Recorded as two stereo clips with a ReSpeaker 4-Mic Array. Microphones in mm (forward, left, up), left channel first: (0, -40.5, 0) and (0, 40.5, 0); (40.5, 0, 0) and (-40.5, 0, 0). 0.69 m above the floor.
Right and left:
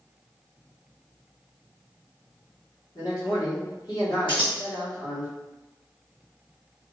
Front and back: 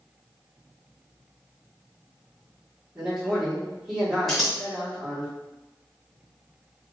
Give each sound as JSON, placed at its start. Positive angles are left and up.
{"t": 3.0, "sound": "a man speaking", "azimuth_deg": -100, "distance_m": 1.7}
{"t": 4.3, "sound": "scissors", "azimuth_deg": -90, "distance_m": 1.1}